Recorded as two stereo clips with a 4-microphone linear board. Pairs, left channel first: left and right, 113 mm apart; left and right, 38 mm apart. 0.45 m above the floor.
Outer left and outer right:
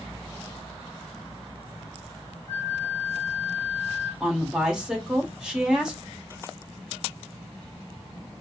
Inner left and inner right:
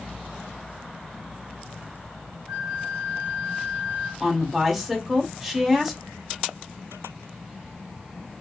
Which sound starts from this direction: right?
A flute, at 2.5 s.